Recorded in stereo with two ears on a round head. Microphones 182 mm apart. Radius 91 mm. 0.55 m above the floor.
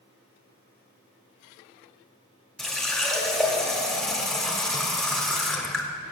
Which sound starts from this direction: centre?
A running tap, at 2.6 s.